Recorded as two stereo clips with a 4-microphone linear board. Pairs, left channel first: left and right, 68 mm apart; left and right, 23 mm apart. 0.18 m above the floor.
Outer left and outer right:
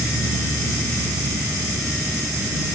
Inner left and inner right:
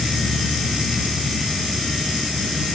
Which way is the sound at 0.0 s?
55° right (ahead or behind).